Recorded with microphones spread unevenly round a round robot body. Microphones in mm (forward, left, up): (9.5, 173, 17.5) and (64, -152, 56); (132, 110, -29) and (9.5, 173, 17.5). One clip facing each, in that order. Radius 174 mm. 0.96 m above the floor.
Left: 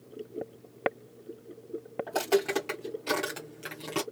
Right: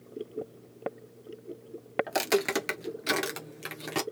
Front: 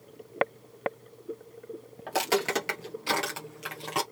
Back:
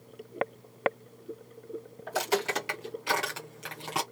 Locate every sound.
2.1 s footsteps: 60° right, 1.3 m; by 4.0 s 145° right, 1.2 m